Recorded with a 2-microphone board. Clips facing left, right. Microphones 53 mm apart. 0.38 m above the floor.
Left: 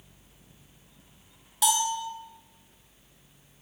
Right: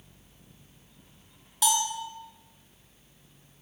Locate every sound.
1.6 s a bell: centre (ahead or behind), 1.0 m